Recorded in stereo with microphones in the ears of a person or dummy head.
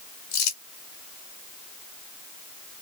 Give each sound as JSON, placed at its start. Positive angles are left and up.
{"t": 0.3, "sound": "crumpling", "side_deg": 35, "distance_m": 0.9}